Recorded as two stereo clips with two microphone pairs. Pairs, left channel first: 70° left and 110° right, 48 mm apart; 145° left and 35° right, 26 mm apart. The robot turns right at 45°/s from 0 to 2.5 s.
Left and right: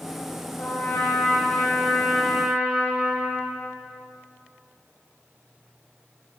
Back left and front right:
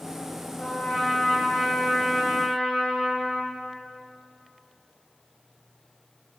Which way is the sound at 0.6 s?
85° left.